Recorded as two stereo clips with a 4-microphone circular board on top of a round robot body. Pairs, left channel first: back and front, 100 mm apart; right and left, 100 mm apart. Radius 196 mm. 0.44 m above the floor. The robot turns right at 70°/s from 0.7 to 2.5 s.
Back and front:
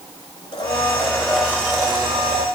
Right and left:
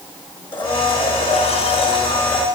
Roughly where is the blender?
Behind right.